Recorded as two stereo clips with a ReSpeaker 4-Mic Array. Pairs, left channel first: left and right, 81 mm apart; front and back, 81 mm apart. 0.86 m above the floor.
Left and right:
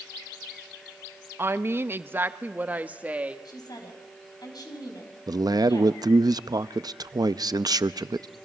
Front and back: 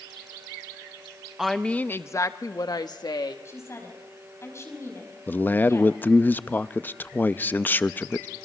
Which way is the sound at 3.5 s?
55° left.